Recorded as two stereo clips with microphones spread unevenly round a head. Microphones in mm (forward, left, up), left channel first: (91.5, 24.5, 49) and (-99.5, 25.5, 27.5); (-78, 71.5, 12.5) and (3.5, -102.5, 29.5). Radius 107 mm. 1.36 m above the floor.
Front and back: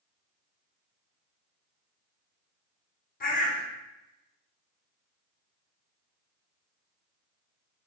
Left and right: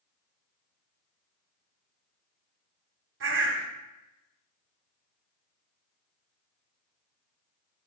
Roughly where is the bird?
Ahead right.